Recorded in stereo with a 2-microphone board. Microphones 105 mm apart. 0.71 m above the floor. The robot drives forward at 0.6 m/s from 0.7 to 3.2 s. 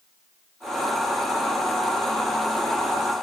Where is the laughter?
I don't hear laughter.